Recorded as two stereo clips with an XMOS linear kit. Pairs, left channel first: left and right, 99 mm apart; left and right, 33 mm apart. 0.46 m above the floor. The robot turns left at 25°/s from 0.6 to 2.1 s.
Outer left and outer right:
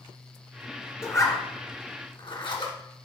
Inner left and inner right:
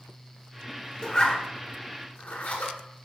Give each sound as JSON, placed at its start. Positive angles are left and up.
{"t": 1.0, "sound": "a zipper", "side_deg": 30, "distance_m": 1.4}